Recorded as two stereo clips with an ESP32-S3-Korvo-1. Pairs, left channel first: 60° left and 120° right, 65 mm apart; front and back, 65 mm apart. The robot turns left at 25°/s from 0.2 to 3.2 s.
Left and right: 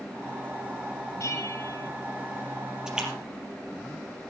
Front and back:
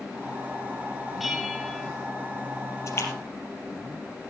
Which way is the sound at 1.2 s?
90° left.